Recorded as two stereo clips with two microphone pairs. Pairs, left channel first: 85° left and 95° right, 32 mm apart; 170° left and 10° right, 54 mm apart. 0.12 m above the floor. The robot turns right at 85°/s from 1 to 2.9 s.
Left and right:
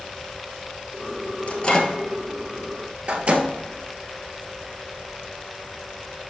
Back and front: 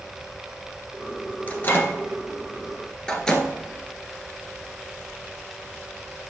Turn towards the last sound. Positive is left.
turn(degrees=-115)